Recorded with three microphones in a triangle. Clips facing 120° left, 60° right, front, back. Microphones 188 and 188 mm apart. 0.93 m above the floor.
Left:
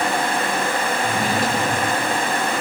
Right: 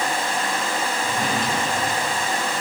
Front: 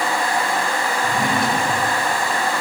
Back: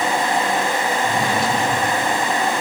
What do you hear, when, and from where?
1.0 s a drawer: 35° left, 8 m